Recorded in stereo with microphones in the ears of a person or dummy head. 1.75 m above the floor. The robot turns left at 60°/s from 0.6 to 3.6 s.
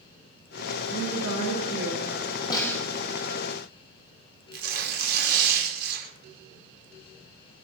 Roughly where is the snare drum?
Left.